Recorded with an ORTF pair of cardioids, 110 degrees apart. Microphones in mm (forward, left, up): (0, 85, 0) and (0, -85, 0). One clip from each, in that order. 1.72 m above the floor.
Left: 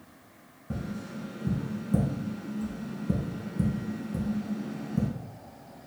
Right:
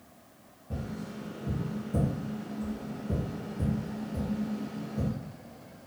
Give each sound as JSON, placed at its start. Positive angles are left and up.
{"t": 0.7, "sound": "tapping", "azimuth_deg": 60, "distance_m": 2.5}